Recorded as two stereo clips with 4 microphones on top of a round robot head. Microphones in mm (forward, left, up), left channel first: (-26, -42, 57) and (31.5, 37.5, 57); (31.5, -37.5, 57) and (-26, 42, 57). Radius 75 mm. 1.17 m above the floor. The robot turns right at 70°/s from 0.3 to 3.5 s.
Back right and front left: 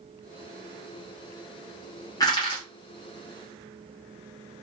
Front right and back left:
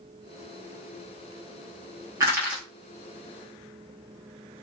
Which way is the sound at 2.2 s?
175° right.